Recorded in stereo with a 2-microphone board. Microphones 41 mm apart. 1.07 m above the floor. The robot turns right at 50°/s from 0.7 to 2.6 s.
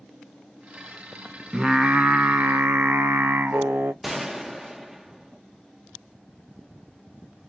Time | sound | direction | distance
1.5 | singing | 160° right | 0.6 m
4.0 | a gunshot | 5° right (ahead or behind) | 0.5 m